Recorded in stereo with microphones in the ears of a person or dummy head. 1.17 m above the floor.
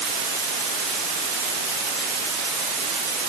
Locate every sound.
Only background noise.